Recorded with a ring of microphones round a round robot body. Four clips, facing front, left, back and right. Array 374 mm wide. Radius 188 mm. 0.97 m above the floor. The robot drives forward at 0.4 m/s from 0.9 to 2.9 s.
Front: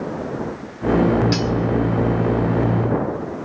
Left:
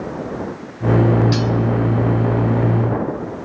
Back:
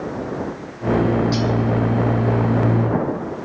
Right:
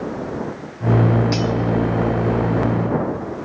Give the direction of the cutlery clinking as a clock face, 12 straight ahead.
12 o'clock.